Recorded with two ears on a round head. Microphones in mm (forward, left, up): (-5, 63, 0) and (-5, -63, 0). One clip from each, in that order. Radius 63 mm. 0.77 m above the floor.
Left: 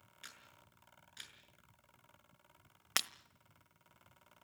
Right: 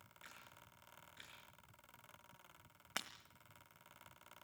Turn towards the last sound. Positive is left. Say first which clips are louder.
# left 9 dB
turn(degrees=70)  # may be behind; listen again after turning